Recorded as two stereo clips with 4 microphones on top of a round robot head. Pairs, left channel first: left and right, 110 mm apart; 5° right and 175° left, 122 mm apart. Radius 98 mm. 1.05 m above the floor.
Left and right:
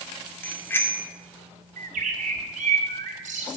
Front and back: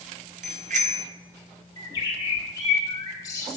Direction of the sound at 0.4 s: 160° left.